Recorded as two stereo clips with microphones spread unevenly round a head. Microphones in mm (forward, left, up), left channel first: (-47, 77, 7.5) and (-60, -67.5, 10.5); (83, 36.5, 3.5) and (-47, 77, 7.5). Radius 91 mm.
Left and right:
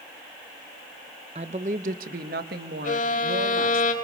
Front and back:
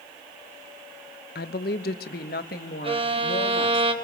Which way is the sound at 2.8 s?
115° left.